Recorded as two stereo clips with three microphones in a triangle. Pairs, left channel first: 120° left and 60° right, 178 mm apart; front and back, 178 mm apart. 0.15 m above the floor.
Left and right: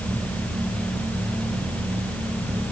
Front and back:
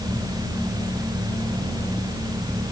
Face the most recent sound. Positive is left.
No sound to turn to.